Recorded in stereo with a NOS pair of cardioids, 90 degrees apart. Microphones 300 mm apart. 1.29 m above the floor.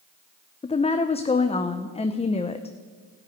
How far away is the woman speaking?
About 0.8 m.